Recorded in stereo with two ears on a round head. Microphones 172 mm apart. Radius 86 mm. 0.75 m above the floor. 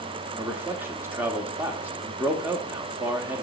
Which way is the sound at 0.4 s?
10° right (ahead or behind).